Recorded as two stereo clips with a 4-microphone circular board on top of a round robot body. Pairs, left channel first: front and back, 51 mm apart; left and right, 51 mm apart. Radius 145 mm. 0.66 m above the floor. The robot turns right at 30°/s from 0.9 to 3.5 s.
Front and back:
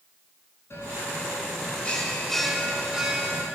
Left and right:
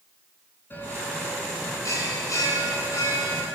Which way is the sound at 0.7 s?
40° left.